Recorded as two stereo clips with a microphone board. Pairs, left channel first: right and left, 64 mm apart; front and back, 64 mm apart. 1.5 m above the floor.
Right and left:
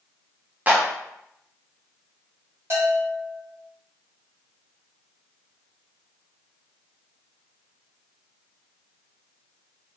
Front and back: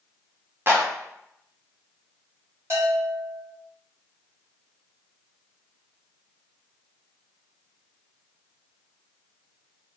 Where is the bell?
135° left, 2 m.